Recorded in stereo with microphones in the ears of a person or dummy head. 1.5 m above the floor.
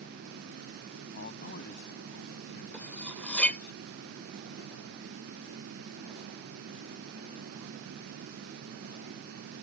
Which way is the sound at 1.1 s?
50° left (ahead or behind).